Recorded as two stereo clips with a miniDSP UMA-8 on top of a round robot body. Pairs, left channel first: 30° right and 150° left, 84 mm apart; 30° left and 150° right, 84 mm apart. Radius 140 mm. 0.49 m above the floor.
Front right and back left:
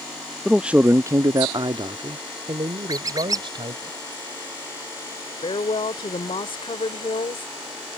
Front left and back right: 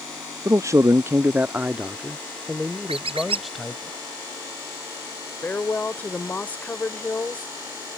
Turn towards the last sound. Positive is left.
turn(degrees=-40)